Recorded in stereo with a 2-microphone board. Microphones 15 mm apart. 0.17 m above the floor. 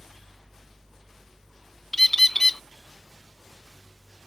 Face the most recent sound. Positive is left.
turn(degrees=20)  # may be behind; listen again after turning